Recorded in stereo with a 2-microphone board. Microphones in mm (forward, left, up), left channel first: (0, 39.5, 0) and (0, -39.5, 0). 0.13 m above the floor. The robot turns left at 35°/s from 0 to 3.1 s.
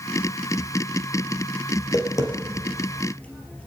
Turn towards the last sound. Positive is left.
turn(degrees=15)  # may be behind; listen again after turning